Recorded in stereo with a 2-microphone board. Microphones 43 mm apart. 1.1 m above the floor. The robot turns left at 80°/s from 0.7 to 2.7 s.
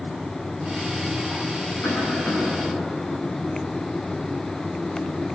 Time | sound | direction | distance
1.8 | a cough | 100° left | 10 m